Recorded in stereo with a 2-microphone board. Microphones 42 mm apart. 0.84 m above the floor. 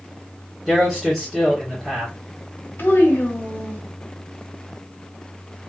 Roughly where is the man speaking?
Centre.